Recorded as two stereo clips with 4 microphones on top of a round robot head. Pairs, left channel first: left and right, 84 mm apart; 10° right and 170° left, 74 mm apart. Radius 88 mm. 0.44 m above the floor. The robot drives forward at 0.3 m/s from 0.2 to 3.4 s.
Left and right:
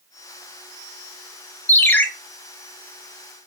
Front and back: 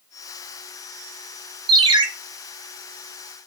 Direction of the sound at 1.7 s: 160° left.